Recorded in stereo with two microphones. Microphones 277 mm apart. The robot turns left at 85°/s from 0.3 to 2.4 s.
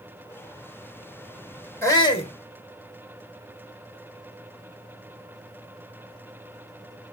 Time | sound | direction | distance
1.8 | a shout | 10° left (ahead or behind) | 0.9 m